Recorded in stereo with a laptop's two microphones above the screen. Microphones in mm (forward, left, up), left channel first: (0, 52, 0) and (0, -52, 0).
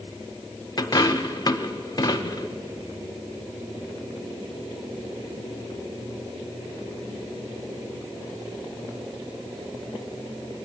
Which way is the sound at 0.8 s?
40° left (ahead or behind).